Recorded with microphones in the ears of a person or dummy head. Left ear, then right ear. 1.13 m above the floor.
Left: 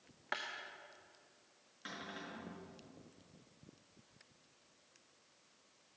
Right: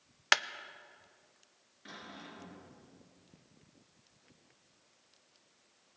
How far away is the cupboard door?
About 5 m.